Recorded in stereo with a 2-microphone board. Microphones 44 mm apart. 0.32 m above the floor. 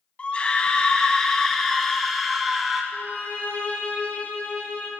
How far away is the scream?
About 1.9 m.